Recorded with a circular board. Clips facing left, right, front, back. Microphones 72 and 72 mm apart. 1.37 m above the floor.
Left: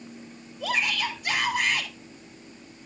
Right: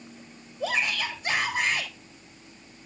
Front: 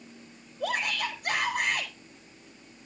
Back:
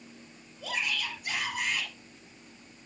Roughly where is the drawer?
I don't hear a drawer.